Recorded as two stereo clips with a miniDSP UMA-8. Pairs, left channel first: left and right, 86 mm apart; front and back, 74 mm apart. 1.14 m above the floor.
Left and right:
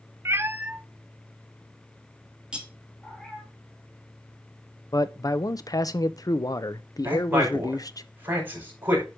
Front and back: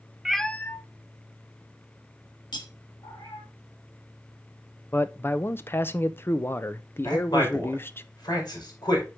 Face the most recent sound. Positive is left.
turn(degrees=-20)